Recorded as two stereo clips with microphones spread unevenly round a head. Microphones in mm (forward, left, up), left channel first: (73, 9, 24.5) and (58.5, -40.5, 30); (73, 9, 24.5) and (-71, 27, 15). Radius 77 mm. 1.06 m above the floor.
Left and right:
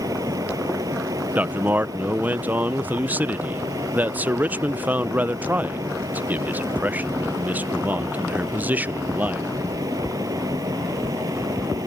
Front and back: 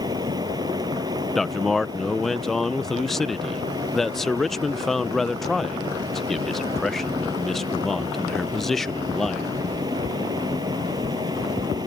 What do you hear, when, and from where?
0.0 s a fan: 120° right
1.4 s a man speaking: 100° right